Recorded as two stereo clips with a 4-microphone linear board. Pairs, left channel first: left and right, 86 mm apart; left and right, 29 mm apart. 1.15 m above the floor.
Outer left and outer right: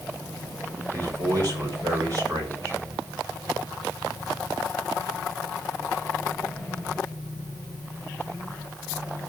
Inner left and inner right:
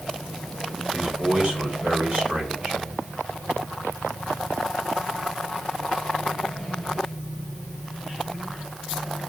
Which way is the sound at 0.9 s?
45° right (ahead or behind).